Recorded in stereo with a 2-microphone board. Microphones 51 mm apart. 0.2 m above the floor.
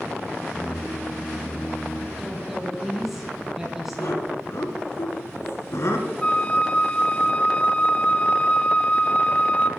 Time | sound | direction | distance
0.5 | singing | 60° left (ahead or behind) | 3 m
2.2 | a woman speaking | 10° right (ahead or behind) | 6 m
4.0 | laughter | 60° left (ahead or behind) | 2.5 m
6.2 | a flute | 20° left (ahead or behind) | 0.6 m